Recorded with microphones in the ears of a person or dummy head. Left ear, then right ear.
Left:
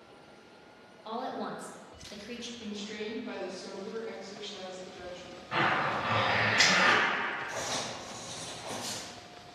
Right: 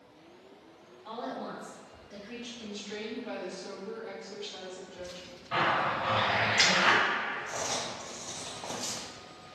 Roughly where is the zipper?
Centre.